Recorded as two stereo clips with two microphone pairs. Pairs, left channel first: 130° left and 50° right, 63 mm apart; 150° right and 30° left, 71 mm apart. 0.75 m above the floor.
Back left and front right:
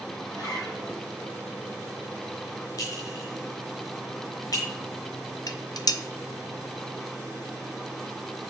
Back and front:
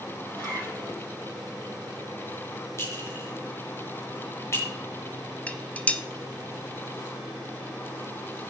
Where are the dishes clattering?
140° left, 0.7 m.